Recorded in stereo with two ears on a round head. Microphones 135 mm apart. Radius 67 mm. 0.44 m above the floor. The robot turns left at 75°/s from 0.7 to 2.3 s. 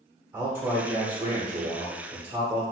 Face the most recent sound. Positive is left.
turn(degrees=-150)